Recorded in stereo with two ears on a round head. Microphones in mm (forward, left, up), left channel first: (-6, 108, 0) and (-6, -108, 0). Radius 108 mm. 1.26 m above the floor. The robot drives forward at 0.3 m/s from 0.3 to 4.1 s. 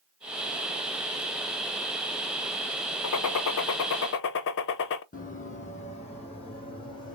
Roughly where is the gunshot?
Left.